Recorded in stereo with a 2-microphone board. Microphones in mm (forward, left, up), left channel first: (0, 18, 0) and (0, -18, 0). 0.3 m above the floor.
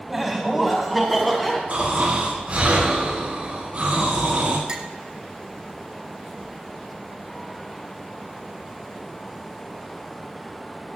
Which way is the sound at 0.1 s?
5° right (ahead or behind).